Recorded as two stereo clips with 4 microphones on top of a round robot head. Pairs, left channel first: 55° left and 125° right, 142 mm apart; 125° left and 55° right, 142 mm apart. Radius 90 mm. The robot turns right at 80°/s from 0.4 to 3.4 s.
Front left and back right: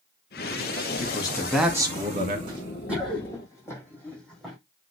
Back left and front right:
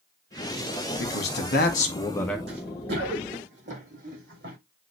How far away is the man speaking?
About 2 m.